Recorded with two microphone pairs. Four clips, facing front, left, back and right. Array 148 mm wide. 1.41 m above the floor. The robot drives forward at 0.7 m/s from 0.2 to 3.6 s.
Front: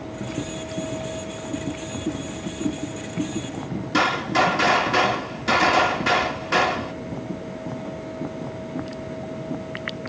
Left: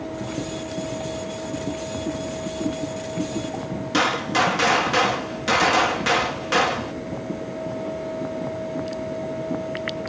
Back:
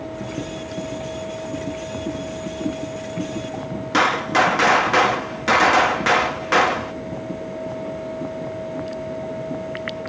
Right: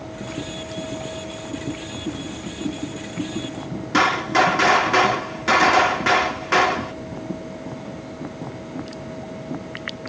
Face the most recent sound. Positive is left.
turn(degrees=-160)